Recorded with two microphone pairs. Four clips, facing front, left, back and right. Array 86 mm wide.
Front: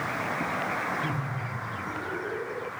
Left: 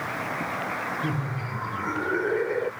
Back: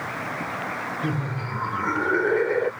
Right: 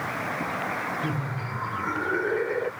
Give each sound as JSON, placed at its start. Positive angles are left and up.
{"t": 1.0, "sound": "laughter", "azimuth_deg": -170}